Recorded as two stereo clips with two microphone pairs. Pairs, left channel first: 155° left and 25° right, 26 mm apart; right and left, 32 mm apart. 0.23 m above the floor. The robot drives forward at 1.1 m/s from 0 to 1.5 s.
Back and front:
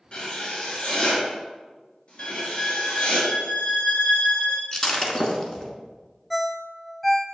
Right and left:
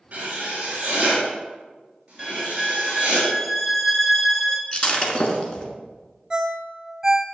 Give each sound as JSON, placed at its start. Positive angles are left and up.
{"t": 0.1, "sound": "writing", "azimuth_deg": 125, "distance_m": 4.0}
{"t": 2.2, "sound": "a violin", "azimuth_deg": 180, "distance_m": 0.6}
{"t": 4.7, "sound": "breaking glass", "azimuth_deg": -145, "distance_m": 1.2}
{"t": 6.3, "sound": "a ringtone", "azimuth_deg": 75, "distance_m": 0.7}